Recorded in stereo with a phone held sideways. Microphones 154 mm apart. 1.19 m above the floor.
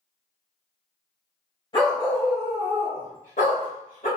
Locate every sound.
1.7 s a dog barking: 35° left (ahead or behind), 2 m; by 4.1 s 65° left (ahead or behind), 1.7 m